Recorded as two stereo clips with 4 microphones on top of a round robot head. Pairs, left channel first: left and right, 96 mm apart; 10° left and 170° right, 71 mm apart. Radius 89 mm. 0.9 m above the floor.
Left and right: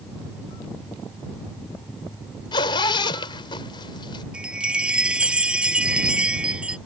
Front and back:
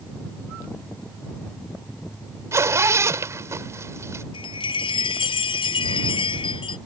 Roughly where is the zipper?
Behind left.